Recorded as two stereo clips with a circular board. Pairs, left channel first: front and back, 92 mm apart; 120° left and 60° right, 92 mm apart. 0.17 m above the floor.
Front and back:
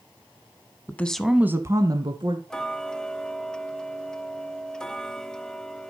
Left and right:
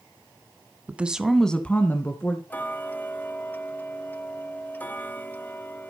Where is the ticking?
75° left, 0.7 m.